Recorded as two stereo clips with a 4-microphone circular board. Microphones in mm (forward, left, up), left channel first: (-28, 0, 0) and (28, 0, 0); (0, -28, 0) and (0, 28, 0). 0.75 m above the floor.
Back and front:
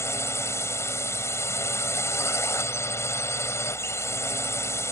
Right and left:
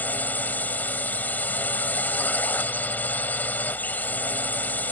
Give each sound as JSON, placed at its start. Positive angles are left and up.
{"t": 0.0, "sound": "a drone", "azimuth_deg": -145}